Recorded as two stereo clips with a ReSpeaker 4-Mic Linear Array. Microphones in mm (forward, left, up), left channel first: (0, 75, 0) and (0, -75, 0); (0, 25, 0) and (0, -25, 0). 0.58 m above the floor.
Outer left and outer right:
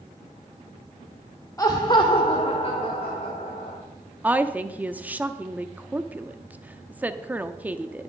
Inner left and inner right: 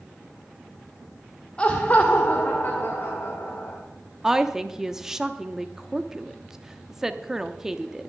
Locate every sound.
1.6 s laughter: 25° left (ahead or behind), 1.0 m; by 3.8 s 50° left (ahead or behind), 2.5 m
4.2 s a woman speaking: 10° right (ahead or behind), 0.7 m